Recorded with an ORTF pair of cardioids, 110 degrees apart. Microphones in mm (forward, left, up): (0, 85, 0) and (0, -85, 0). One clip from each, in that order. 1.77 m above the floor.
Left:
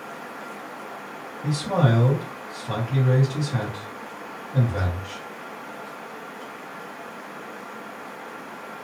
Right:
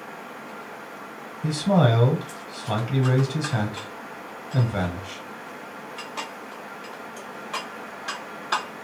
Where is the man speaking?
25° right, 1.3 m.